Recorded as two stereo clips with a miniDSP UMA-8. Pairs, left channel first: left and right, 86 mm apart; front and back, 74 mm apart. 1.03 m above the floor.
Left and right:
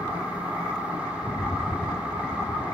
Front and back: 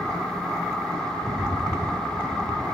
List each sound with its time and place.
1.2 s a rattle: 175° left, 0.5 m